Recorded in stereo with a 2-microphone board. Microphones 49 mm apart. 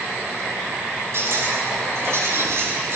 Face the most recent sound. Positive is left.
turn(degrees=-65)  # may be behind; listen again after turning